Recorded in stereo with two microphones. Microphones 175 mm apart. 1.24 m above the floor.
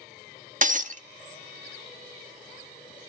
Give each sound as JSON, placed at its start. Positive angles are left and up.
{"t": 0.6, "sound": "breaking glass", "side_deg": -50, "distance_m": 0.9}